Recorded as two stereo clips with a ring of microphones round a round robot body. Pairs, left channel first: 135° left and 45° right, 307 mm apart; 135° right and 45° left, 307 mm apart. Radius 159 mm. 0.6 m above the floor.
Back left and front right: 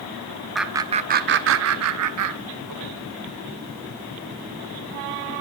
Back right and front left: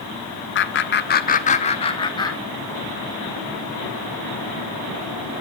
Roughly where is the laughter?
Behind right.